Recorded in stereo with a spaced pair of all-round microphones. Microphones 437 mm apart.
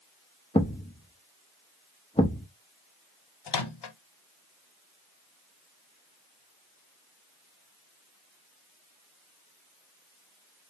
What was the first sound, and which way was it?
A thud, 15° left (ahead or behind).